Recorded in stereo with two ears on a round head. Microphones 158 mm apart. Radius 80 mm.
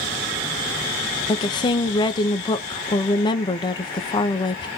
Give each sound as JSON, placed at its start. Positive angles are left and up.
{"t": 1.3, "sound": "a woman speaking", "side_deg": 25, "distance_m": 0.7}